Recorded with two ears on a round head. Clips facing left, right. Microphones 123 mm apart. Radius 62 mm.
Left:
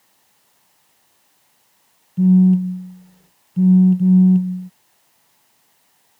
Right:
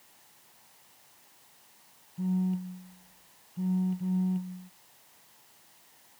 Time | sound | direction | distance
2.2 | a phone buzzing | 70° left (ahead or behind) | ?